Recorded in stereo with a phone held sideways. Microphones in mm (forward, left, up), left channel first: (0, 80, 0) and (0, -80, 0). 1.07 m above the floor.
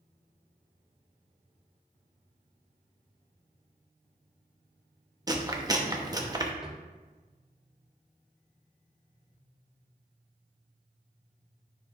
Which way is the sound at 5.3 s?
25° right (ahead or behind).